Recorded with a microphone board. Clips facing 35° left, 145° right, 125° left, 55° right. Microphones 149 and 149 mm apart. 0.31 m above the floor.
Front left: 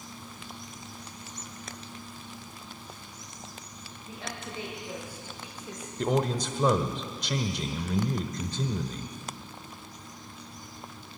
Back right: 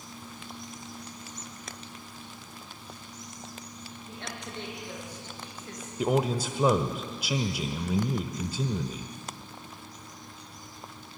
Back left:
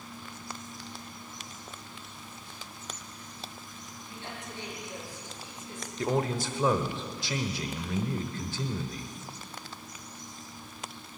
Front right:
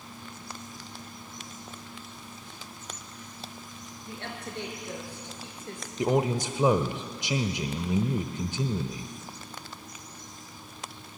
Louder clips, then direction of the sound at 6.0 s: Back right 1 dB, front right 4 dB; 75° right.